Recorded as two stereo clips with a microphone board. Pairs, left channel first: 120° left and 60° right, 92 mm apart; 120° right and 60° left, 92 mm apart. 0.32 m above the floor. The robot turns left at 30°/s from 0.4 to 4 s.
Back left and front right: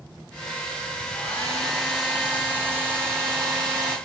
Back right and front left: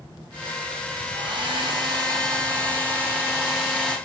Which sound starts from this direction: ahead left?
A hair dryer, at 1.1 s.